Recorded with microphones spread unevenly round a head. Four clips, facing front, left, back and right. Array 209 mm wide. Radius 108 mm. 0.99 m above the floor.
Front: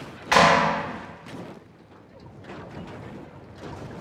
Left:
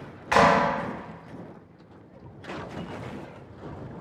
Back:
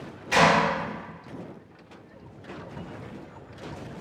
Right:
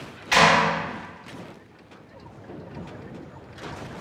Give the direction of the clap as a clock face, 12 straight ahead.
11 o'clock.